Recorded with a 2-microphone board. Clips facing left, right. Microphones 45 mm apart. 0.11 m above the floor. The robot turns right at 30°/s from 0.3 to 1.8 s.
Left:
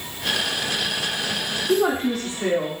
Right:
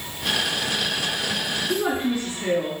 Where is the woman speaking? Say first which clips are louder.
Left 4 dB; 75° left (ahead or behind), 4.5 m.